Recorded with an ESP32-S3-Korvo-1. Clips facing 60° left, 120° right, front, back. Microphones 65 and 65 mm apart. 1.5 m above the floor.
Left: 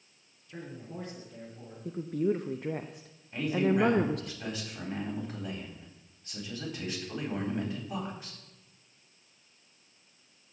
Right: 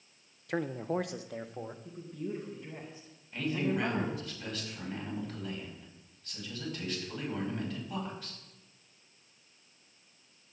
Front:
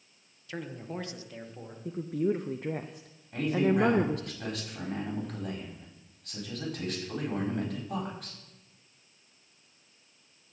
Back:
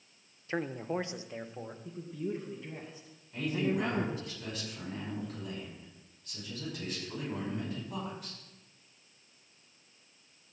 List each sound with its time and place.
0.5 s a man speaking: 125° right, 0.6 m; by 1.8 s 105° right, 1.3 m
1.9 s a woman speaking: 30° left, 0.6 m
3.3 s a man speaking: 5° right, 5 m